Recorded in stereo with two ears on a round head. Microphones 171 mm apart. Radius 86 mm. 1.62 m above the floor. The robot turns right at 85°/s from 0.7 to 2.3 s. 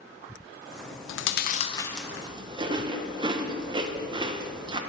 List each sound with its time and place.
1.1 s chewing: 70° left (ahead or behind), 0.5 m; by 4.8 s 25° right (ahead or behind), 0.5 m